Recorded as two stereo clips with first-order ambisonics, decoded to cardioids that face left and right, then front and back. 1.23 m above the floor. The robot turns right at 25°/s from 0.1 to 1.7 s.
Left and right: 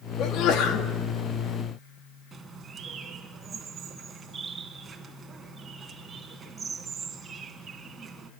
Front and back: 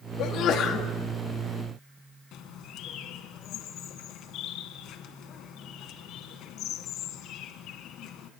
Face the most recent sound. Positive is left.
turn(degrees=-25)